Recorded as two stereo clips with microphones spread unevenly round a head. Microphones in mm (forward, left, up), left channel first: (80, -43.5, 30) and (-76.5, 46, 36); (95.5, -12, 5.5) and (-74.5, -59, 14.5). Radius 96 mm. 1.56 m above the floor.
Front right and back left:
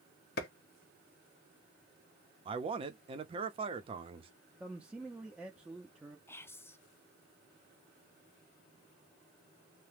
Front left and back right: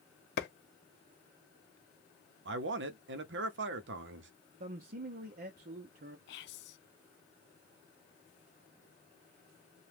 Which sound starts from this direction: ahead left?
Whispering, at 6.3 s.